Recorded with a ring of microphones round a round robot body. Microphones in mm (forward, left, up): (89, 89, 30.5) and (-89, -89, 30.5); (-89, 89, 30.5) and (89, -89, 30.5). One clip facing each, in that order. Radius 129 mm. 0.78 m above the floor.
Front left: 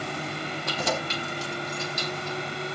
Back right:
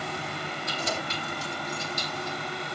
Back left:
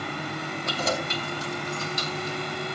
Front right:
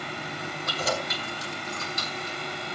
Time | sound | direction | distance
0.7 | keys jangling | 70° left | 3.5 m